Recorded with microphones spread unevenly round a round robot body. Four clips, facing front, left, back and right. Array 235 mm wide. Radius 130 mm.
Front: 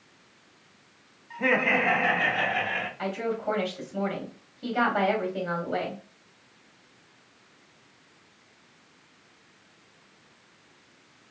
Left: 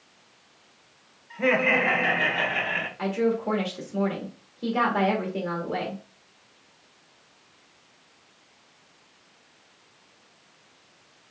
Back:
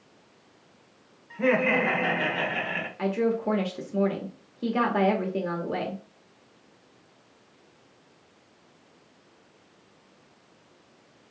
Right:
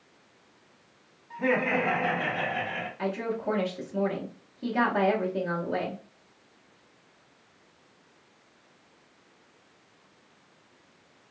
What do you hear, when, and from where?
1.3 s laughter: 135° left, 1.9 m; by 2.9 s 105° left, 1.5 m
3.0 s a woman speaking: 165° left, 1.5 m